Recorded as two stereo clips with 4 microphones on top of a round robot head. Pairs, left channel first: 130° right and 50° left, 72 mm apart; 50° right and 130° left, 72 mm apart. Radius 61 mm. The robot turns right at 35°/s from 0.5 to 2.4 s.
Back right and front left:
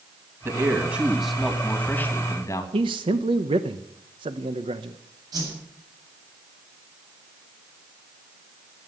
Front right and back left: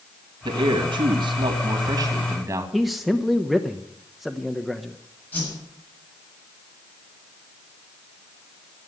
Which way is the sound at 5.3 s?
15° left.